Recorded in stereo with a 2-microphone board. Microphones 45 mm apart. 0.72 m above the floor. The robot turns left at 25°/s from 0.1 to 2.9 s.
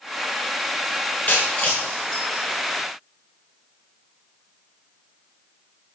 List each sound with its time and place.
1.3 s breaking glass: 35° left (ahead or behind), 6.5 m; by 2.4 s 10° left (ahead or behind), 6.5 m